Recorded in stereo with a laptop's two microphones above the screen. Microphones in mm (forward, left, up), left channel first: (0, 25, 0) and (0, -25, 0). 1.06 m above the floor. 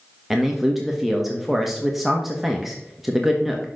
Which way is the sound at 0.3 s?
5° right (ahead or behind).